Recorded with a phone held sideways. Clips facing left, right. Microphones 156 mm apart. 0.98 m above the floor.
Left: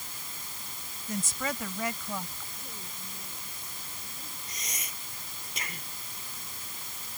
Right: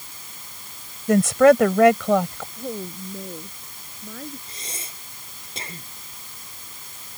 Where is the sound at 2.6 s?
80° right.